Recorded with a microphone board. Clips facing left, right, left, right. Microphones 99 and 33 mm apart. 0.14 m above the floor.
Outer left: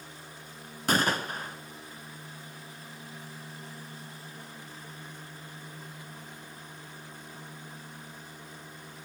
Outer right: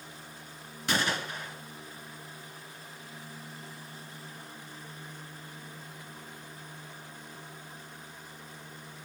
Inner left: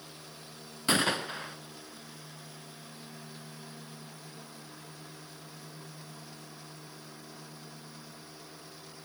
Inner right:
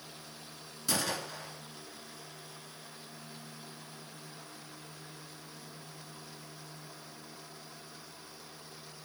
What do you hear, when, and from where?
0.9 s a gunshot: 45° left (ahead or behind), 1.7 m